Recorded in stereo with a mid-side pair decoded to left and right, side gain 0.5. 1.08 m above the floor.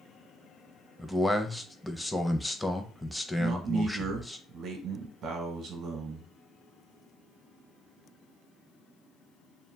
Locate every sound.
1.0 s a man speaking: 5° left, 0.6 m
3.4 s a man speaking: 60° right, 0.9 m